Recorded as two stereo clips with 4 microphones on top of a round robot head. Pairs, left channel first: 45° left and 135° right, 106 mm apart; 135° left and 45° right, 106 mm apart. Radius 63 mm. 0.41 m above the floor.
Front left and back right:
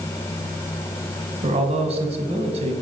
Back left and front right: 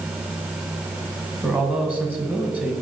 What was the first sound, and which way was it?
A man speaking, 120° right.